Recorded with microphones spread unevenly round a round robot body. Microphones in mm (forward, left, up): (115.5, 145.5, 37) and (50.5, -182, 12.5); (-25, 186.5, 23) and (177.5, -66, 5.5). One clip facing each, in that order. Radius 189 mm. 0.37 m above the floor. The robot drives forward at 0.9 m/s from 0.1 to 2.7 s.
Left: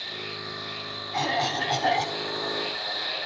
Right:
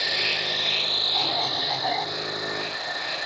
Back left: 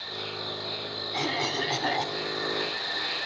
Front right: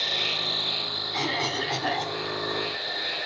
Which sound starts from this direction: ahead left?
A cough, at 1.1 s.